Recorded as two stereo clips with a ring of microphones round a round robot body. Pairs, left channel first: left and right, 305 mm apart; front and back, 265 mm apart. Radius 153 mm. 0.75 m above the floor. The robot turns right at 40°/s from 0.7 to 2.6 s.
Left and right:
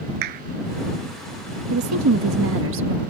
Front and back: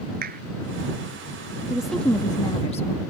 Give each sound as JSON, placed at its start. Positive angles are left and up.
{"t": 0.2, "sound": "a clap", "azimuth_deg": -115}
{"t": 1.7, "sound": "a woman speaking", "azimuth_deg": -95}